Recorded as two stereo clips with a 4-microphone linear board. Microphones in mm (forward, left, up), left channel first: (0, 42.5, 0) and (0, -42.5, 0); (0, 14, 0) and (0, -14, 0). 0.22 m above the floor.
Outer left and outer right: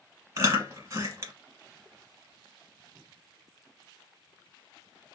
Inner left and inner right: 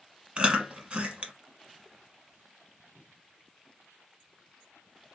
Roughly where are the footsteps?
I don't hear footsteps.